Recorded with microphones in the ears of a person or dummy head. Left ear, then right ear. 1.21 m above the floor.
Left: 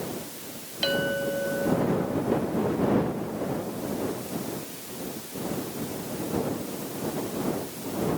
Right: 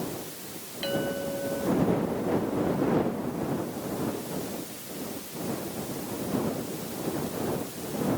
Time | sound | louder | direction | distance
0.8 | a clink | left 4 dB | 30° left (ahead or behind) | ?